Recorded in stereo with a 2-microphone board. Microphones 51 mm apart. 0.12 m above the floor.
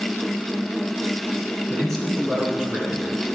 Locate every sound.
1.7 s a man speaking: 20° left (ahead or behind), 1.9 m; by 3.1 s 35° right (ahead or behind), 2 m